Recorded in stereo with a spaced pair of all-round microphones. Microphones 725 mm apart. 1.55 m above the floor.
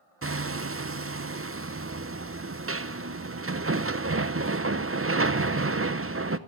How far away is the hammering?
About 0.6 m.